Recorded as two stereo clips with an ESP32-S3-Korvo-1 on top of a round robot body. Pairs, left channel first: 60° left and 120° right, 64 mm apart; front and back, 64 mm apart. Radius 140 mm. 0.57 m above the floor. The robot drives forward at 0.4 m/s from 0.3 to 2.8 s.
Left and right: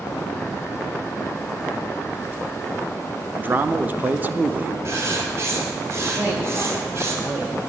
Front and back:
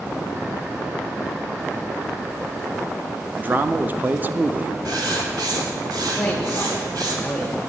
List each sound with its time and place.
3.4 s a man speaking: 150° right, 0.6 m
4.8 s writing: 165° right, 1.6 m
6.2 s a man speaking: 80° right, 1.4 m